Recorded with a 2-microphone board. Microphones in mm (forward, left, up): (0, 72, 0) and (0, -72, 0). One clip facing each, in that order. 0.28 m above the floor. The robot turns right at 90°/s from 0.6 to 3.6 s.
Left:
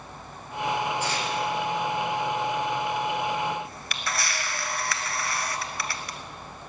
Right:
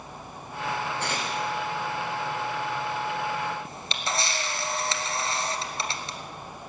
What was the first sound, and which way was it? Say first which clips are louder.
Tearing paper: left 2 dB; 65° right (ahead or behind).